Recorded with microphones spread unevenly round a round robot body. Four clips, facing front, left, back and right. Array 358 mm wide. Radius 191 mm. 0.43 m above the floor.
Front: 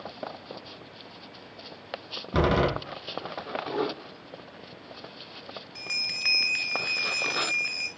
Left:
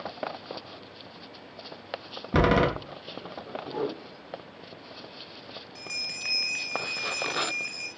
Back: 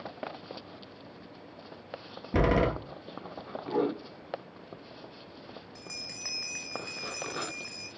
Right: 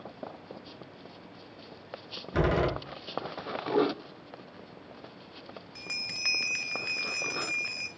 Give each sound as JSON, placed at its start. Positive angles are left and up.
{"t": 2.3, "sound": "a door slam", "azimuth_deg": 85, "distance_m": 5.0}
{"t": 3.7, "sound": "a whoosh", "azimuth_deg": -130, "distance_m": 1.8}
{"t": 5.8, "sound": "a bell", "azimuth_deg": -125, "distance_m": 1.4}